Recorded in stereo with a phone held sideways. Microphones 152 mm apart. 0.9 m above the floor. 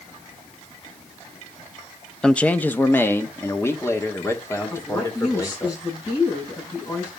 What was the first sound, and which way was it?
A man speaking, 5° left (ahead or behind).